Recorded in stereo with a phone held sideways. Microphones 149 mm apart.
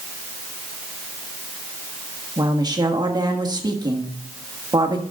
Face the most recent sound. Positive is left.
turn(degrees=-25)  # may be behind; listen again after turning